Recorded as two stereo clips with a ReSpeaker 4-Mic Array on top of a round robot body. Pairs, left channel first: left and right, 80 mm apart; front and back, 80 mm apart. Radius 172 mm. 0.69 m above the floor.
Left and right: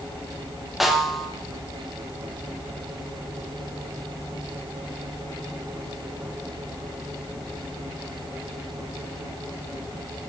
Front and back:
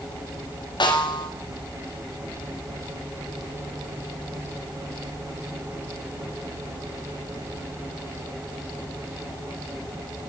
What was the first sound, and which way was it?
A snare drum, 5° right.